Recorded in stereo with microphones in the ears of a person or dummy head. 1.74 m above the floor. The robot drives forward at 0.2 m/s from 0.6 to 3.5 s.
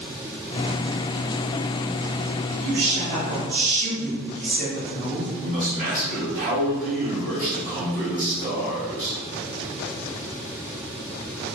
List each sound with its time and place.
2.6 s a woman speaking: 70° right (ahead or behind), 1.7 m; by 5.3 s 75° right (ahead or behind), 1.7 m
5.4 s a man speaking: 45° right (ahead or behind), 1.5 m